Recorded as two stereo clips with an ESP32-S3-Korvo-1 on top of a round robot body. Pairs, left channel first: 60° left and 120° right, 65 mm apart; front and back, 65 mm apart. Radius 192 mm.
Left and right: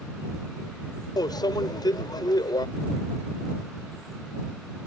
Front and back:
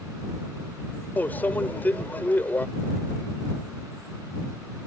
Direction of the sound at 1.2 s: 65° left.